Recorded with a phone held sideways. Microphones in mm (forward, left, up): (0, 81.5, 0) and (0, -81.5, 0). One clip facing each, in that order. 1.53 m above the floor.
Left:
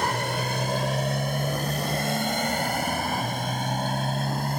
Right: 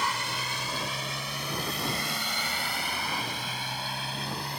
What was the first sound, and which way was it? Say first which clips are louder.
A motorcycle: left 7 dB; 55° left (ahead or behind).